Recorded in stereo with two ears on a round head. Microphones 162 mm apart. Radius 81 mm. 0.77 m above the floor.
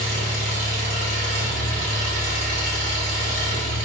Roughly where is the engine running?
Right.